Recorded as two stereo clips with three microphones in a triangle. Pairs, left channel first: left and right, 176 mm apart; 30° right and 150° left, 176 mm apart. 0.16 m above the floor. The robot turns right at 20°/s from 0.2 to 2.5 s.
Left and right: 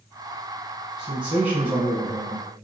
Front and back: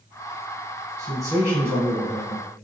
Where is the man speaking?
170° right, 1.6 m; by 2.5 s 140° right, 1.6 m.